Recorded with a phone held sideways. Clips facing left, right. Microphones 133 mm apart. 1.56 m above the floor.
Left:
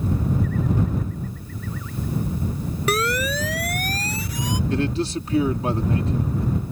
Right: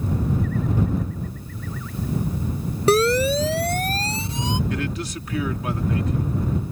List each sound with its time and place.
2.9 s a siren: 30° right (ahead or behind); by 4.6 s 25° right (ahead or behind)
4.7 s a man speaking: 30° left (ahead or behind)